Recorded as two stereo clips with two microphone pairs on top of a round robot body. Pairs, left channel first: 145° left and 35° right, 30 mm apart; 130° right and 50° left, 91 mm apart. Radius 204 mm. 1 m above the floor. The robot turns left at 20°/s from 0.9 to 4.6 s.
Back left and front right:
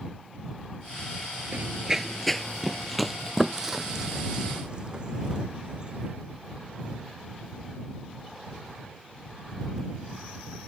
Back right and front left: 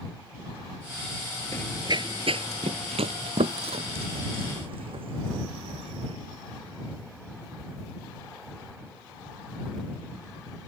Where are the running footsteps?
60° right; by 6.1 s 30° left.